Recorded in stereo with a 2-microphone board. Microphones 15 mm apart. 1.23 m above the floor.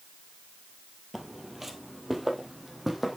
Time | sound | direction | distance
1.1 | footsteps | 20° right (ahead or behind) | 1.4 m